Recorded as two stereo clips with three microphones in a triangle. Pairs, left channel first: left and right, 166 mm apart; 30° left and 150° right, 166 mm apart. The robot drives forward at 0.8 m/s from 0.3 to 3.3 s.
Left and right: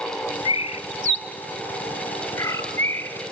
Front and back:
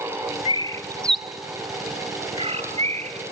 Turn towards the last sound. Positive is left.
turn(degrees=165)